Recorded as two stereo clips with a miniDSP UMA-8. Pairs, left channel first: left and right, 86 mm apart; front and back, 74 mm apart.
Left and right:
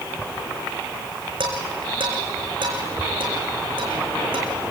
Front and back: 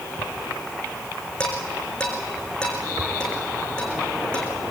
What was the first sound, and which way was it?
Dishes clattering, 80° right.